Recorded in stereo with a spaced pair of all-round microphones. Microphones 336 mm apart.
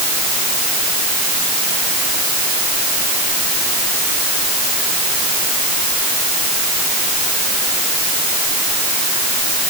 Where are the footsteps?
No footsteps in this recording.